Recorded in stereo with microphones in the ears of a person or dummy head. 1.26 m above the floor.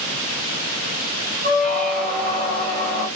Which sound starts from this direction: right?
A squeak, at 1.4 s.